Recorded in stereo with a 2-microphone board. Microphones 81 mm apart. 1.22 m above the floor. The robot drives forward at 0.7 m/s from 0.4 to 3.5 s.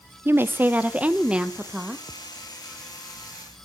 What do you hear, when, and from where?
0.2 s a woman speaking: 25° right (ahead or behind), 0.7 m; by 2.0 s 10° right (ahead or behind), 1.7 m